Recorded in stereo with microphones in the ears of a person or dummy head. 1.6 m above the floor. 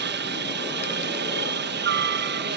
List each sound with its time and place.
0.0 s a helicopter: 60° right (ahead or behind)